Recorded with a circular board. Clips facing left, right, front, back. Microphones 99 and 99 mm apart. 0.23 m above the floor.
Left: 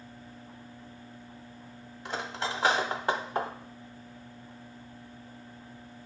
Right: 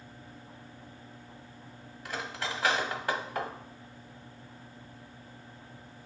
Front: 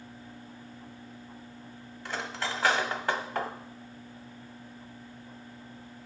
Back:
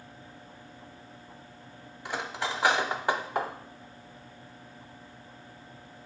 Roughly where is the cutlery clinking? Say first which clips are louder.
Left 2 dB, back 2 dB; behind left.